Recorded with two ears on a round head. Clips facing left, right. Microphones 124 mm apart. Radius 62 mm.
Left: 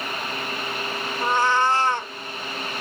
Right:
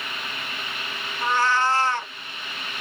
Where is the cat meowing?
15° left (ahead or behind), 0.7 m.